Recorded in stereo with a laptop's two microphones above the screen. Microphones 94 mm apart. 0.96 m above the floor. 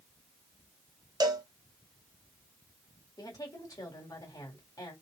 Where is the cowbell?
40° right (ahead or behind), 0.5 m.